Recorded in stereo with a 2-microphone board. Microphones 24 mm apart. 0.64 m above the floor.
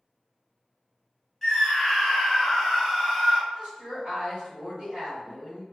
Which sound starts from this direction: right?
A woman speaking, at 3.5 s.